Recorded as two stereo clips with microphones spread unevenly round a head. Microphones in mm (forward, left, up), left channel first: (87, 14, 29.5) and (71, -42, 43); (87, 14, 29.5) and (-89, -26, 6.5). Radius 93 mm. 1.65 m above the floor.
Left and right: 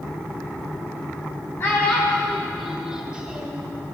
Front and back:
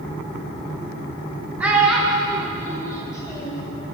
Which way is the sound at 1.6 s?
100° left.